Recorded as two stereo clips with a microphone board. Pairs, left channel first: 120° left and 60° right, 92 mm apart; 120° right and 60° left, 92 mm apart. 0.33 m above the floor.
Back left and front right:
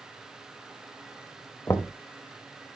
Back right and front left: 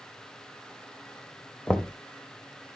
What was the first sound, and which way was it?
Knocking, 170° left.